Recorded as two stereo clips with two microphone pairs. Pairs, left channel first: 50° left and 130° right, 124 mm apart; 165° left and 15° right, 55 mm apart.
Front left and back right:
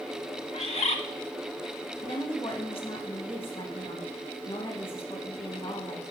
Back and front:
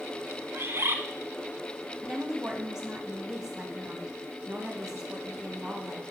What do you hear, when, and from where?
0.5 s a bird: 25° left, 0.9 m
2.0 s a woman speaking: 60° left, 2 m